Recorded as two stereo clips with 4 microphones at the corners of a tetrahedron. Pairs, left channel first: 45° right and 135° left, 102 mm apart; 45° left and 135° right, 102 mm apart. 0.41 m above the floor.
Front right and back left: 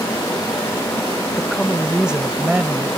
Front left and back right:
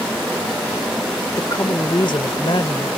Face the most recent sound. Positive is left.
turn(degrees=65)